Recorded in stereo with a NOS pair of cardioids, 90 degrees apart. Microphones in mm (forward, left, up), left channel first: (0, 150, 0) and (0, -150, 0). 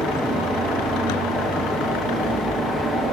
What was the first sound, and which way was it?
A fan, straight ahead.